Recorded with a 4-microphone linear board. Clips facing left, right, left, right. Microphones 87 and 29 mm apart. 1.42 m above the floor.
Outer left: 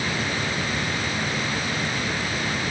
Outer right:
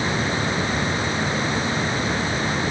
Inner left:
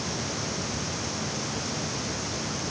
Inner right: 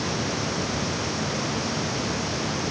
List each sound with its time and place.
Only background noise.